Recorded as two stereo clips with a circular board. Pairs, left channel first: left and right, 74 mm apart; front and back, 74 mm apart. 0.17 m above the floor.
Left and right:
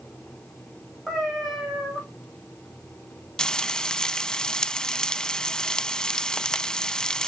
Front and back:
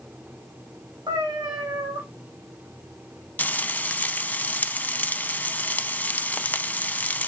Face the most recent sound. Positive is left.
turn(degrees=25)